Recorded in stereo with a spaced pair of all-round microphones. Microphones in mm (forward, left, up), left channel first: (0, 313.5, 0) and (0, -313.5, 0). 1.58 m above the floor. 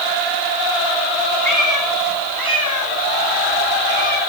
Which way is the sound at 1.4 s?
30° right (ahead or behind).